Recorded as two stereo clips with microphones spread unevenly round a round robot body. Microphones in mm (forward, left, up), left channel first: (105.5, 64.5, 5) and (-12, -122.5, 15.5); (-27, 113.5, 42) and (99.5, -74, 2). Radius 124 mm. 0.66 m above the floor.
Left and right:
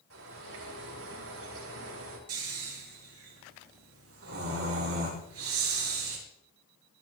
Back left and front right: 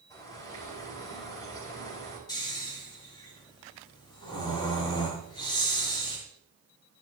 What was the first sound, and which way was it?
A bird, 155° right.